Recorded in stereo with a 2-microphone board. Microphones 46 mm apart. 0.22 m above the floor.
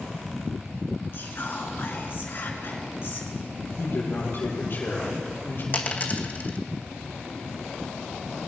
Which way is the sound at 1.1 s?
50° left (ahead or behind).